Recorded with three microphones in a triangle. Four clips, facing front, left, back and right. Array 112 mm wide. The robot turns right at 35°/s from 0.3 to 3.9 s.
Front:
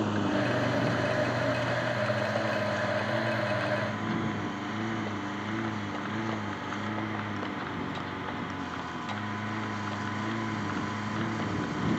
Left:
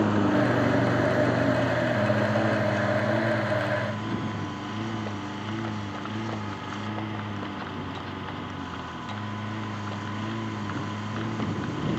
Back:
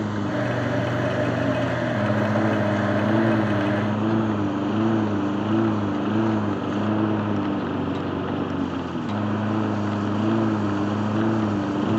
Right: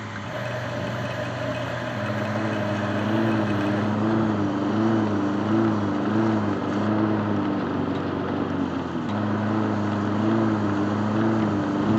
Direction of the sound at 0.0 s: 100° left.